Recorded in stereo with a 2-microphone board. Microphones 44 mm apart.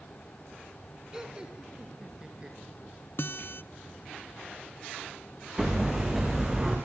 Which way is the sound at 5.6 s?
15° right (ahead or behind).